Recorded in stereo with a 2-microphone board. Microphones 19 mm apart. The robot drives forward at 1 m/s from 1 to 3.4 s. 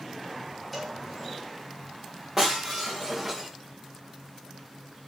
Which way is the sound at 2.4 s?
15° right (ahead or behind).